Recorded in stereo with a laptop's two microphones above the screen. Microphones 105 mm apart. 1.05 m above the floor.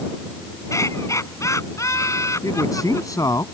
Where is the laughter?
30° left (ahead or behind).